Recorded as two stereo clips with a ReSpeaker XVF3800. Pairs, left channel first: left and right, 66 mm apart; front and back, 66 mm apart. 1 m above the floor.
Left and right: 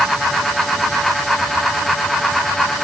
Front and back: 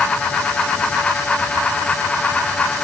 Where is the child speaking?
No child speaking in this recording.